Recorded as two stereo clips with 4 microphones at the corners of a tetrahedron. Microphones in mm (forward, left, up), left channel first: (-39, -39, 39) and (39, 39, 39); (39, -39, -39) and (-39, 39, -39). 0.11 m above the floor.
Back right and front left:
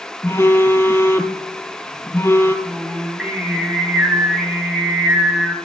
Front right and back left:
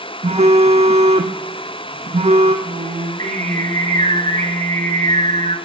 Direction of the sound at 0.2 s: 155° left.